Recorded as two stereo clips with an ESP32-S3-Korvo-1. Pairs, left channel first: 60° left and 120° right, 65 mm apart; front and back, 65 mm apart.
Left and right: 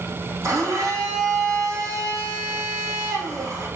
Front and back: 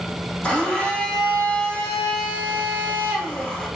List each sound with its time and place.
0.4 s a blender: 75° right, 2.5 m